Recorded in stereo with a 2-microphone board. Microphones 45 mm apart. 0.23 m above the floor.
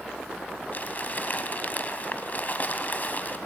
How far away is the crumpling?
About 1.6 m.